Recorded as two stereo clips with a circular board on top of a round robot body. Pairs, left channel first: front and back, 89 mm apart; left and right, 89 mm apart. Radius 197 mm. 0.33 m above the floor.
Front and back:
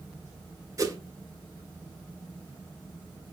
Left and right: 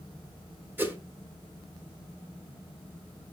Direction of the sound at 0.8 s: 145° right.